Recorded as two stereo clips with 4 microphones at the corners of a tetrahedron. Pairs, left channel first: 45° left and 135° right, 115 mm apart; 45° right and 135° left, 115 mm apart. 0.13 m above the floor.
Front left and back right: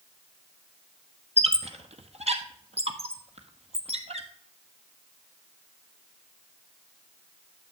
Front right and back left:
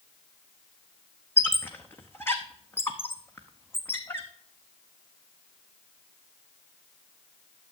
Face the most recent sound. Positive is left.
turn(degrees=-115)